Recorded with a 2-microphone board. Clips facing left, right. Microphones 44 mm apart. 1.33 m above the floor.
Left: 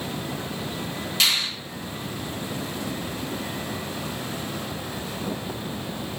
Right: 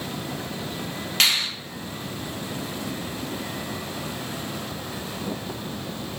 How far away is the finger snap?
About 1.6 m.